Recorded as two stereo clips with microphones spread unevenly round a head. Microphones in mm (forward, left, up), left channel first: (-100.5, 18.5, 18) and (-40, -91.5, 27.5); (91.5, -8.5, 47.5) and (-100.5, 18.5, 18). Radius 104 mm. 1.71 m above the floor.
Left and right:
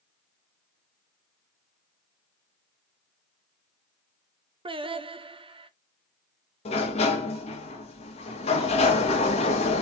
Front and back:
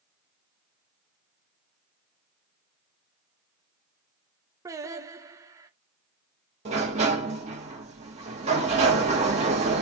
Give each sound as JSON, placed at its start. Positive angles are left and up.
{"t": 4.7, "sound": "singing", "azimuth_deg": -115, "distance_m": 0.6}
{"t": 6.7, "sound": "a sliding door", "azimuth_deg": 115, "distance_m": 1.2}